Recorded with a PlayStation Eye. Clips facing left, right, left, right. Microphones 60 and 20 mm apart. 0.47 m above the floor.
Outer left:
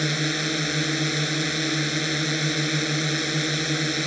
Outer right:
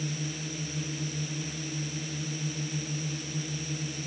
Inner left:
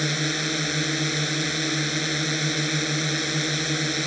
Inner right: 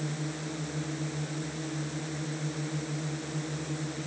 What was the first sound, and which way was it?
A drone, 65° left (ahead or behind).